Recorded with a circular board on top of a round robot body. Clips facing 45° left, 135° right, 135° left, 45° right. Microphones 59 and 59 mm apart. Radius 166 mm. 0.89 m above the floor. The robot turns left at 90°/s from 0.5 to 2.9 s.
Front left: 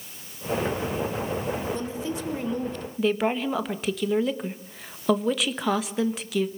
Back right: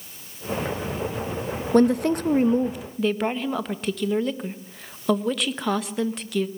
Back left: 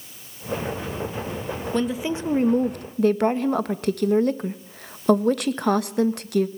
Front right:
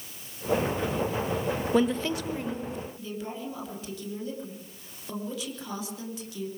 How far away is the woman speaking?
About 1.7 m.